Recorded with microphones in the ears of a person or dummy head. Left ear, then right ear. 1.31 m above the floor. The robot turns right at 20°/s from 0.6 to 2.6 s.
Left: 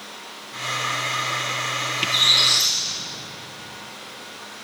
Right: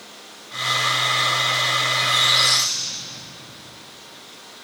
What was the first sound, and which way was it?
A squeak, 30° right (ahead or behind).